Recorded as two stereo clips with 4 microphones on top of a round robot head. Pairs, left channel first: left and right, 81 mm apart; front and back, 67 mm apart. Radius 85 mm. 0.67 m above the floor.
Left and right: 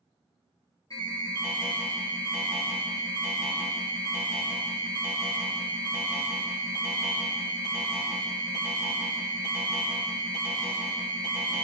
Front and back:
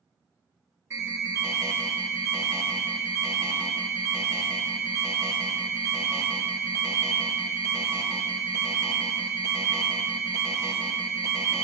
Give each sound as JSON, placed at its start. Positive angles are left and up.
{"t": 0.9, "sound": "an alarm", "azimuth_deg": 135, "distance_m": 5.5}